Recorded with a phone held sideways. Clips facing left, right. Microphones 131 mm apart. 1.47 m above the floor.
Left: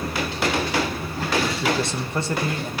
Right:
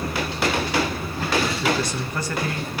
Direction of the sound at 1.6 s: 25° left (ahead or behind).